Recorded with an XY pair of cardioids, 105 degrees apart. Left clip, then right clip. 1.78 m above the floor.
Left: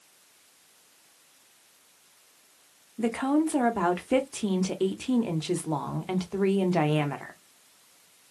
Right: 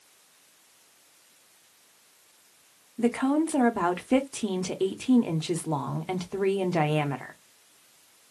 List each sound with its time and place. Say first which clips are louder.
3.0 s a woman speaking: right 1 dB; 5° right, 1.3 m